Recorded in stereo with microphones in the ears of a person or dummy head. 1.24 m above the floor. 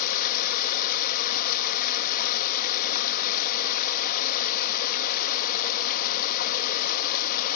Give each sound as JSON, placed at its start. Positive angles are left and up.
{"t": 0.0, "sound": "running water", "side_deg": 50, "distance_m": 1.0}